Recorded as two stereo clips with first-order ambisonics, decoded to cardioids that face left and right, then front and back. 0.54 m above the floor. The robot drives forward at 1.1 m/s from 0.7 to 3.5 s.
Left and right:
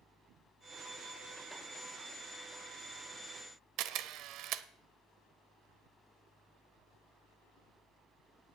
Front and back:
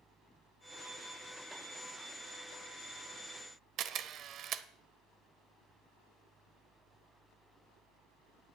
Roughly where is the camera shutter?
Behind right.